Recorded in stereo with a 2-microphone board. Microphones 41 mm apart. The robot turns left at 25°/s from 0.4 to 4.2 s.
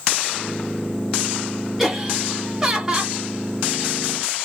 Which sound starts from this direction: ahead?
Laughter, at 1.8 s.